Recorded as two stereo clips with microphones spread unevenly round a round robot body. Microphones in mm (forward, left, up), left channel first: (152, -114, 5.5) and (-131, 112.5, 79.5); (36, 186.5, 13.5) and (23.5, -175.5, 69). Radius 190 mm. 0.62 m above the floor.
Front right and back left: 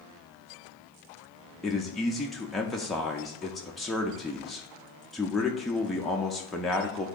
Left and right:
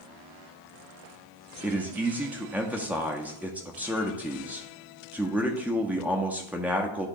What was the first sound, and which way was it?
A man speaking, 10° left.